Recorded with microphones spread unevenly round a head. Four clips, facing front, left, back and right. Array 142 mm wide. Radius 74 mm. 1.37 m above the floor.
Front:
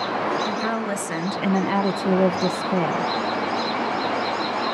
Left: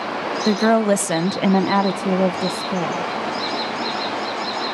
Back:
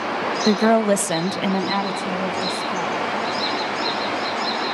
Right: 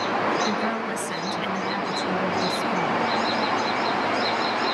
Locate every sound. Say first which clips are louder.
0.5 s a woman speaking: left 9 dB, back 8 dB; 135° left, 1.4 m; by 3.1 s 35° left, 1.9 m